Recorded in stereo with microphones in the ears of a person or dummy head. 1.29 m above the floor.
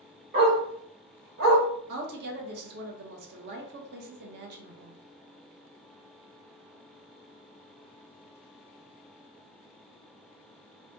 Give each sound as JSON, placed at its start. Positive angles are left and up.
{"t": 0.3, "sound": "a dog barking", "side_deg": -45, "distance_m": 1.3}
{"t": 1.9, "sound": "a woman speaking", "side_deg": -55, "distance_m": 1.3}